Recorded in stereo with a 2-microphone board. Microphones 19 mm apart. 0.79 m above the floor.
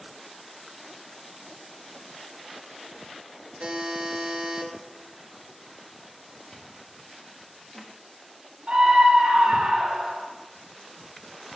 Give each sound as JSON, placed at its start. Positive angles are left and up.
{"t": 3.6, "sound": "a buzzer", "side_deg": -55, "distance_m": 1.0}
{"t": 6.5, "sound": "chewing", "side_deg": 20, "distance_m": 1.2}
{"t": 8.7, "sound": "a scream", "side_deg": -60, "distance_m": 1.4}